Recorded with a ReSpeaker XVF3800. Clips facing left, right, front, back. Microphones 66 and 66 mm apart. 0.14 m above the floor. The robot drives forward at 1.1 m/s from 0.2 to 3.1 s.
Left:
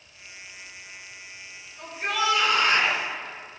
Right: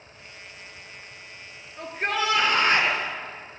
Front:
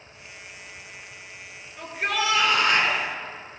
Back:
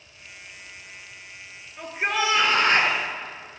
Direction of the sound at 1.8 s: 100° right.